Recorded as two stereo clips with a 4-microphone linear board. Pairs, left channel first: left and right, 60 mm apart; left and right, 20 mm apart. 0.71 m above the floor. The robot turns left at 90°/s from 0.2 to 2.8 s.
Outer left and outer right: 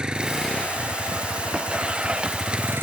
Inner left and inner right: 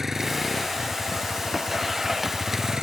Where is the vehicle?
165° right; by 2.8 s 40° right.